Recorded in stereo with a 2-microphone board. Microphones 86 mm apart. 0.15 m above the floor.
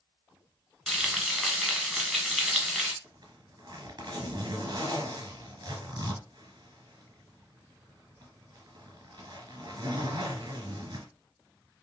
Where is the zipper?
55° right (ahead or behind), 1.1 m.